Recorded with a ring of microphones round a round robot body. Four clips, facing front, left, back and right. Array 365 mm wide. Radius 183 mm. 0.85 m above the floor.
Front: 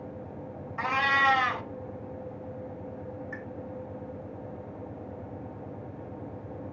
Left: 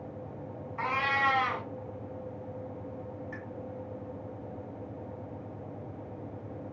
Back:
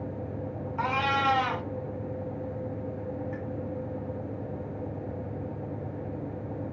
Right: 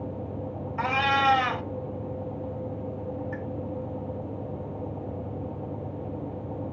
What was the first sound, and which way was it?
A cat meowing, 60° right.